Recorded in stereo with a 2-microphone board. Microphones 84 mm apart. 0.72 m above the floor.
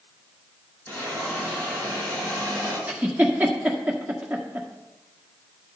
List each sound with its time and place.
0.9 s a hiss: 20° left (ahead or behind), 5.5 m
2.9 s a giggle: 15° right (ahead or behind), 1.5 m